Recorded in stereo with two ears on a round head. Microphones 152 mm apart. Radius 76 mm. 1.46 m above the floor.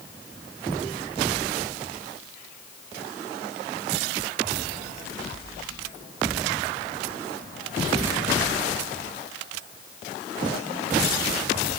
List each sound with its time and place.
Only background noise.